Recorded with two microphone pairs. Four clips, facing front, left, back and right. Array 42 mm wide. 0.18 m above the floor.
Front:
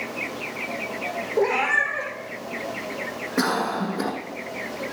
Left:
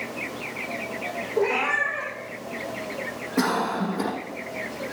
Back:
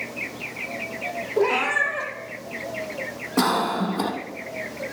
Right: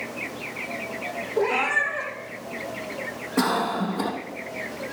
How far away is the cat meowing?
About 3.5 m.